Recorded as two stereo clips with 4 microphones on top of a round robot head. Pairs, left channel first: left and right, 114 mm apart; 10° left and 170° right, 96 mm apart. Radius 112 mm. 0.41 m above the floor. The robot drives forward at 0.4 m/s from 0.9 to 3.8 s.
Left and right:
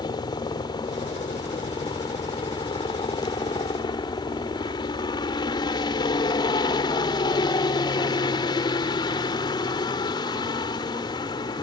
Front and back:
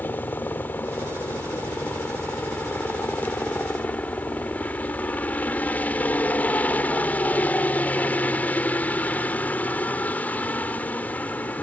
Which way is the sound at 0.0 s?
70° left.